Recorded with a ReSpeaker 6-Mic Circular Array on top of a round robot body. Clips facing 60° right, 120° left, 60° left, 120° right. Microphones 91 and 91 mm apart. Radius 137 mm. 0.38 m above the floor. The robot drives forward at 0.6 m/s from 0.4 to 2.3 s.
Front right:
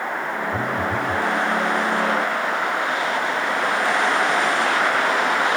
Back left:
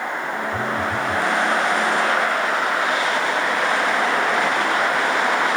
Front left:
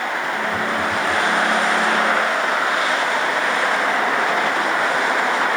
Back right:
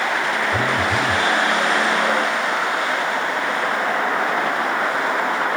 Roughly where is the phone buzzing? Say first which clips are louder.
Even, back right 1 dB; behind right.